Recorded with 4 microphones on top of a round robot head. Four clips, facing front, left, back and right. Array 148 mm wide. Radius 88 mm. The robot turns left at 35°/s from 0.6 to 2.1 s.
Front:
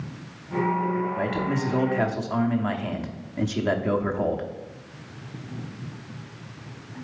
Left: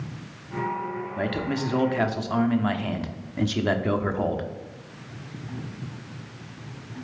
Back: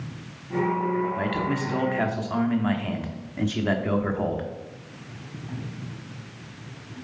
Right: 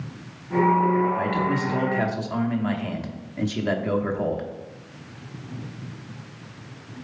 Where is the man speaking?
115° left, 1.0 m; by 4.5 s 85° left, 1.0 m.